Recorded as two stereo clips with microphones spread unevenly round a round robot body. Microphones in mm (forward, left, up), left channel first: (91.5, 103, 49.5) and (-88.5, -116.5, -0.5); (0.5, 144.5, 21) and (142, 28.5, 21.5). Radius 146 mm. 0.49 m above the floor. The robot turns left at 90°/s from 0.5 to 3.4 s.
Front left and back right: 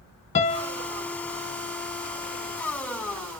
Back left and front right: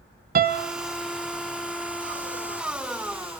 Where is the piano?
10° right, 0.7 m; by 0.7 s 30° right, 0.7 m.